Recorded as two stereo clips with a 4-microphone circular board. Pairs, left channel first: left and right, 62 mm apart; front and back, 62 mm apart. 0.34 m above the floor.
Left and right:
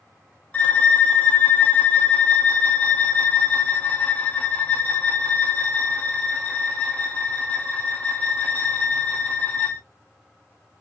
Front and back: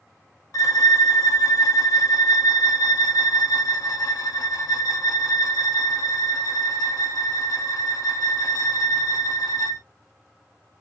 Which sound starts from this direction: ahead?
A violin, at 0.5 s.